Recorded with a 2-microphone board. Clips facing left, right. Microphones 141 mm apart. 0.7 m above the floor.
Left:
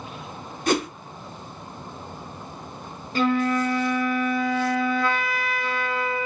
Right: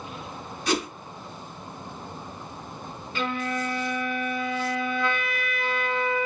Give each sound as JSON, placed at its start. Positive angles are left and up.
{"t": 0.7, "sound": "a whoosh", "side_deg": 50, "distance_m": 0.9}
{"t": 3.1, "sound": "a flute", "side_deg": 35, "distance_m": 0.6}